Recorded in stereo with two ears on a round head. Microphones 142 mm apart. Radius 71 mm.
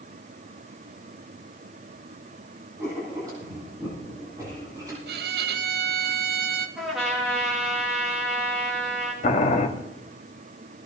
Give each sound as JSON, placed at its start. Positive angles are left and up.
{"t": 2.8, "sound": "writing", "side_deg": -25, "distance_m": 9.5}
{"t": 5.1, "sound": "a violin", "side_deg": -70, "distance_m": 1.0}
{"t": 6.8, "sound": "a trumpet", "side_deg": 0, "distance_m": 7.0}
{"t": 9.2, "sound": "boiling", "side_deg": 50, "distance_m": 1.8}